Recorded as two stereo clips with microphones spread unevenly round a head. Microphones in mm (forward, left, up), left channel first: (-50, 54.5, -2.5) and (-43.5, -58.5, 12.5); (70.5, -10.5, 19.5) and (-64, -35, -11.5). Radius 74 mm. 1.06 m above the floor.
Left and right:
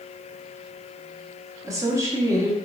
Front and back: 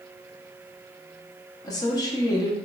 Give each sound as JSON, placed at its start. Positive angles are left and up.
{"t": 1.6, "sound": "a woman speaking", "azimuth_deg": -45, "distance_m": 0.6}